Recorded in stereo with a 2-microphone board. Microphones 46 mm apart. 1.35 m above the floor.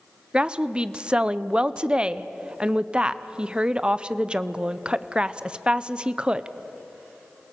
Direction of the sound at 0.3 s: 20° right (ahead or behind).